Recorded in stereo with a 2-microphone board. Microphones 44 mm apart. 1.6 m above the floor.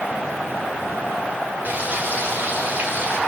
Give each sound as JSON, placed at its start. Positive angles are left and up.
{"t": 1.6, "sound": "frying", "side_deg": -45, "distance_m": 4.0}